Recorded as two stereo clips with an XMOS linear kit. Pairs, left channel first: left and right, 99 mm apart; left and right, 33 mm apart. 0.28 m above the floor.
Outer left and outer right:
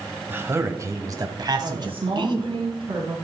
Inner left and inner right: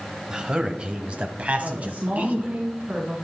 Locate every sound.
0.3 s a man speaking: 20° right (ahead or behind), 1.4 m; by 2.6 s 55° right (ahead or behind), 2 m
1.6 s a woman speaking: 65° right (ahead or behind), 2.5 m